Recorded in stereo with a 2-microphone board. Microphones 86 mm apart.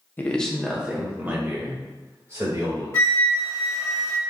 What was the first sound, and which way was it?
A man speaking, 25° left (ahead or behind).